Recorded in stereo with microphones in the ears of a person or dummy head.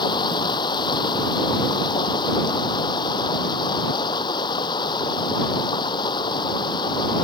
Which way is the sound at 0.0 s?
25° left (ahead or behind).